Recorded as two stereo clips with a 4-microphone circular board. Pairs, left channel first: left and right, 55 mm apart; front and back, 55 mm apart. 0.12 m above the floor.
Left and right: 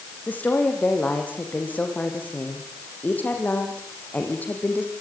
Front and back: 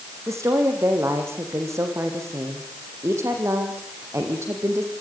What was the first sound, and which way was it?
A woman speaking, 150° left.